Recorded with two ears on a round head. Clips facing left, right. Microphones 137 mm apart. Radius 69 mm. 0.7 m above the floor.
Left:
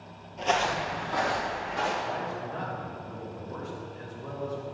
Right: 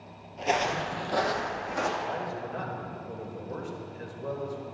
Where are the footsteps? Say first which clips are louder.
Left 1 dB; centre (ahead or behind), 0.8 m; by 1.9 s 65° right (ahead or behind), 2 m.